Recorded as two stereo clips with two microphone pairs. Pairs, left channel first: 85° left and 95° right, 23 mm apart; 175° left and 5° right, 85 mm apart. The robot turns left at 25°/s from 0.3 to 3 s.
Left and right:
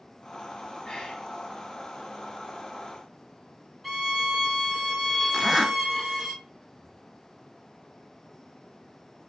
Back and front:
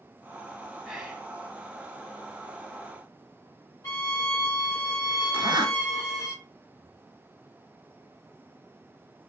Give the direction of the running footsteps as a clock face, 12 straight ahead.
I don't hear running footsteps.